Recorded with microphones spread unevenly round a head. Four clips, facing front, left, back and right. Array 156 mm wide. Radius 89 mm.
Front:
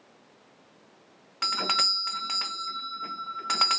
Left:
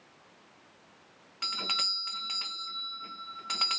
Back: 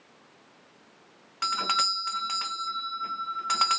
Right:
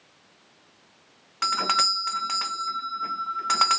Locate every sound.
1.4 s a doorbell: 40° right